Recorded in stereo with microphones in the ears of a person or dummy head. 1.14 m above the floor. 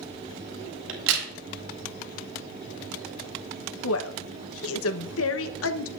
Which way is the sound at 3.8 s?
70° left (ahead or behind).